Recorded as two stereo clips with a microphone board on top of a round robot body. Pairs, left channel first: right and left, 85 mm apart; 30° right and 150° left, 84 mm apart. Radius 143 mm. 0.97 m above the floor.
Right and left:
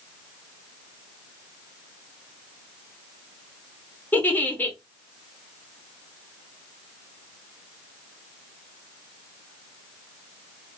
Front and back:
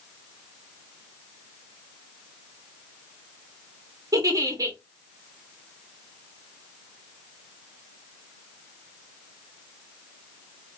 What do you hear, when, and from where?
4.1 s a giggle: 160° right, 0.9 m